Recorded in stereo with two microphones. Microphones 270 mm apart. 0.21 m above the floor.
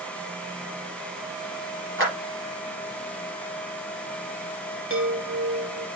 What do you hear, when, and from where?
2.0 s a clap: 50° right (ahead or behind), 4 m
4.9 s a chime: 50° right (ahead or behind), 1.6 m